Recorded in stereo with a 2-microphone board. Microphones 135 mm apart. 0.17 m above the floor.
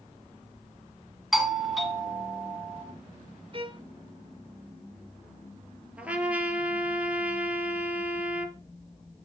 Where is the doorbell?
Centre (ahead or behind), 1.8 m.